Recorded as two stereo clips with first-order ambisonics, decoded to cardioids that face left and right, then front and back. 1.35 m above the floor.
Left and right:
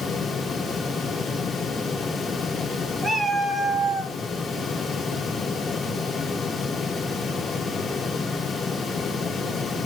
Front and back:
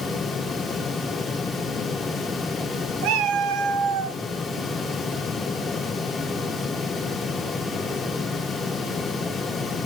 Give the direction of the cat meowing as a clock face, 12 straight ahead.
6 o'clock.